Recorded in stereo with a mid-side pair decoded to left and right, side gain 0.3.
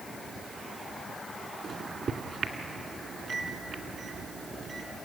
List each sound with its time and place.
1.6 s a microwave: 70° right, 2 m